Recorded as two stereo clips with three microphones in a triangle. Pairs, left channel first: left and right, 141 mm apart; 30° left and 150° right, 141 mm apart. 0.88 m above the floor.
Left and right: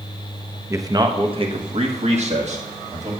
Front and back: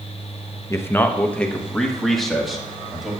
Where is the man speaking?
30° right, 0.6 m; by 3.1 s 65° right, 1.7 m.